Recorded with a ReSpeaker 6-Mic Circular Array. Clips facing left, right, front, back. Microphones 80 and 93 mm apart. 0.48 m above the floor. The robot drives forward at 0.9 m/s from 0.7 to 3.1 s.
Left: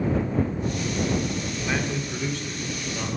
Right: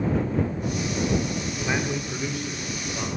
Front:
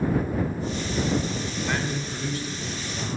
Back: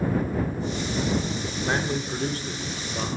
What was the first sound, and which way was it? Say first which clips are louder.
A man speaking: right 1 dB, back 5 dB; 150° right.